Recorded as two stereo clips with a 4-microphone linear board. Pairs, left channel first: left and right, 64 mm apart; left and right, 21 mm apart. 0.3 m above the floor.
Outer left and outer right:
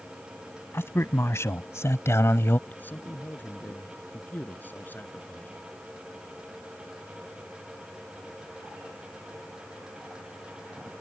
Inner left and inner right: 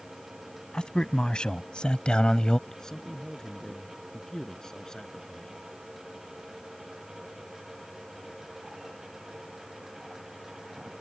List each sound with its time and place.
0.7 s a man speaking: 40° left (ahead or behind)
2.7 s a man speaking: 30° left (ahead or behind)